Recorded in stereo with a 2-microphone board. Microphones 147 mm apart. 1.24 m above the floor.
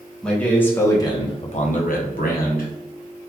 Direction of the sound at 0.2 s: 5° left (ahead or behind).